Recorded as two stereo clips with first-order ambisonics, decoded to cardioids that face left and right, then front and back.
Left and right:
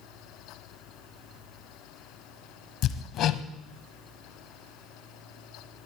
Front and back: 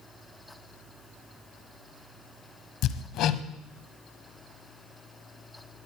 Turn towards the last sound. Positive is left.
turn(degrees=40)